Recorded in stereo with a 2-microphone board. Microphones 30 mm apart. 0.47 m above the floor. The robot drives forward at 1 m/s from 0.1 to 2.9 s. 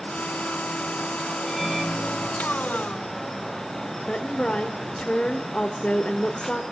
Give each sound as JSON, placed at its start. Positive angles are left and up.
{"t": 1.5, "sound": "a microwave", "side_deg": 5, "distance_m": 3.0}
{"t": 4.1, "sound": "a woman speaking", "side_deg": 40, "distance_m": 1.6}